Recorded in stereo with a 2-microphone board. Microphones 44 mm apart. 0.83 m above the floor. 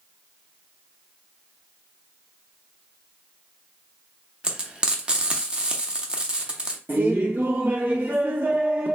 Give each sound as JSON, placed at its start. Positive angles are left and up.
{"t": 4.4, "sound": "frying", "side_deg": -20, "distance_m": 0.6}
{"t": 6.9, "sound": "laughter", "side_deg": -45, "distance_m": 0.5}